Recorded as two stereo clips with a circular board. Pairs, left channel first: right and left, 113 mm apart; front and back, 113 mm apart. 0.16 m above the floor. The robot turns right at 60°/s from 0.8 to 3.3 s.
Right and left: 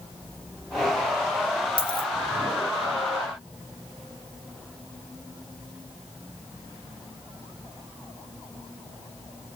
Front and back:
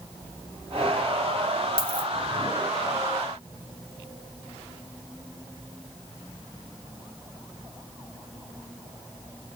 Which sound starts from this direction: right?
A dropped coin, at 1.8 s.